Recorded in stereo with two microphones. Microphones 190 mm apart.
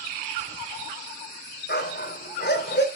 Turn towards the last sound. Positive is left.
turn(degrees=70)  # may be behind; listen again after turning